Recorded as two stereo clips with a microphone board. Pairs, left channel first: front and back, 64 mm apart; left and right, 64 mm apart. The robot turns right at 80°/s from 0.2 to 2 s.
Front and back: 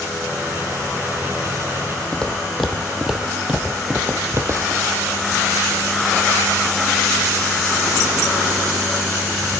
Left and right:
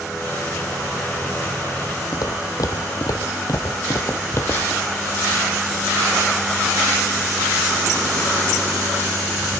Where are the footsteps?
75° left, 1.6 m; by 4.8 s 150° left, 1.5 m.